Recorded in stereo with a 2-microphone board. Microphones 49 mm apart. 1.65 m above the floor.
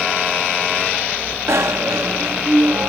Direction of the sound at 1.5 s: 70° right (ahead or behind).